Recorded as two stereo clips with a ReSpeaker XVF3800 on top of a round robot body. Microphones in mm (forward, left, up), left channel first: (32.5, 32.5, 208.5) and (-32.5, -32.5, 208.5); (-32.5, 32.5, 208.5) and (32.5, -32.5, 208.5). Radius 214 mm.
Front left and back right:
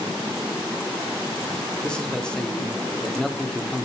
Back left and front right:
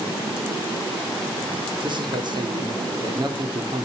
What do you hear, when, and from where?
1.8 s a man speaking: 35° right, 2 m